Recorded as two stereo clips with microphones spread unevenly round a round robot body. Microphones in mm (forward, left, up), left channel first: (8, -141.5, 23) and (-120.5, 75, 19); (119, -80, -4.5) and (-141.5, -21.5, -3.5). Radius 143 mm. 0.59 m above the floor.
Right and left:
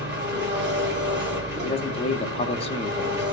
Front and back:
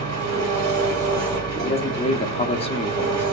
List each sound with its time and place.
0.0 s an engine running: 160° left, 1.6 m
1.6 s a man speaking: 35° right, 0.6 m